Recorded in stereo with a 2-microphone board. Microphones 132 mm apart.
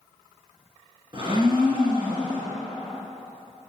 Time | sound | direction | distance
1.1 | a blender | 35° right (ahead or behind) | 2.5 m